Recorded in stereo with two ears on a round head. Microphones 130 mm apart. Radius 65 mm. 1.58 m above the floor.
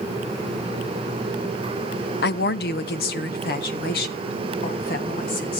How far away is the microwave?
I don't hear a microwave.